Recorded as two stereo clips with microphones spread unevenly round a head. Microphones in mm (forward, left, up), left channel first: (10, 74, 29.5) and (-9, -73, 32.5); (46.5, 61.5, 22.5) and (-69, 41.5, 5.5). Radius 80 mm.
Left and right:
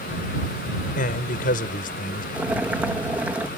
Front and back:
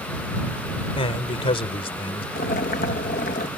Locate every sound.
1.0 s a man speaking: 45° left
2.4 s boiling: 15° right